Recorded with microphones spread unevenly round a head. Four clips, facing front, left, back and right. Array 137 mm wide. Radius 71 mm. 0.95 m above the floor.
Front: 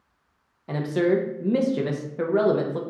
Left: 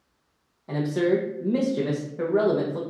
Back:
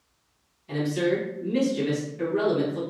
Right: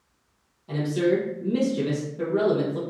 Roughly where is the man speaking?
Ahead left.